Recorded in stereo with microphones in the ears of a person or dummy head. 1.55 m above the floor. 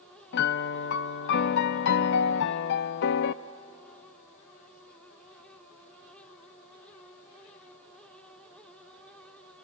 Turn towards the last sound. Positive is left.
turn(degrees=60)  # may be behind; listen again after turning